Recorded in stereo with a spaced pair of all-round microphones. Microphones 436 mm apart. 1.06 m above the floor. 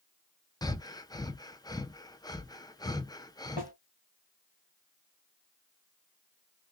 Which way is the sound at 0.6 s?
10° left (ahead or behind).